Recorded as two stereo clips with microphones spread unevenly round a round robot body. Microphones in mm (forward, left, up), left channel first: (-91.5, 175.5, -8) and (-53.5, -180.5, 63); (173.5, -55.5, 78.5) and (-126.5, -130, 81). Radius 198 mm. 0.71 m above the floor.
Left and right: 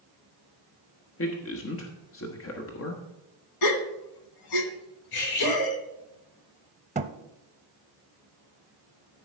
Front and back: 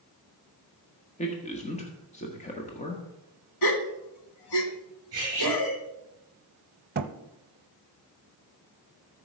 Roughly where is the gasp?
Ahead left.